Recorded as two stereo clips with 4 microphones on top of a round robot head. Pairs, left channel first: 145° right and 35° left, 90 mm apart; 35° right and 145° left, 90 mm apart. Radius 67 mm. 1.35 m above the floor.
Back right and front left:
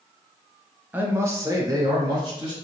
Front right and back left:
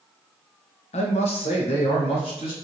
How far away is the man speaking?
About 0.7 m.